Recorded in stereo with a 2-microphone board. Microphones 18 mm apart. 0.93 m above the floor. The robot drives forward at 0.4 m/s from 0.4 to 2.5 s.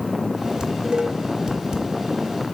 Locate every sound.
0.6 s dishes clattering: 45° right (ahead or behind), 3 m; by 1.9 s 50° right (ahead or behind), 2.5 m